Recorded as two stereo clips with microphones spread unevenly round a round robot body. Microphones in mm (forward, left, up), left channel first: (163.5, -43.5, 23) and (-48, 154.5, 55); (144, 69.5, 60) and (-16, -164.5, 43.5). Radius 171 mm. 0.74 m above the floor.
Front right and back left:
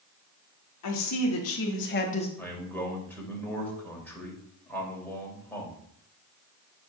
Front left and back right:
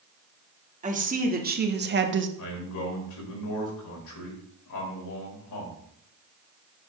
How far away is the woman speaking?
About 1.9 m.